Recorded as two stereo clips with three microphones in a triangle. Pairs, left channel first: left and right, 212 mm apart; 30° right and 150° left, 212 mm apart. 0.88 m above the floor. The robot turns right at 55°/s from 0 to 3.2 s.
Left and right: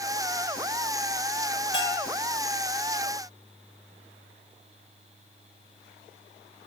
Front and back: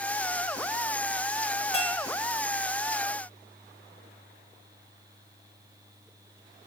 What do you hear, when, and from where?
1.7 s a bell: 95° left, 1.6 m; by 2.1 s 115° left, 1.6 m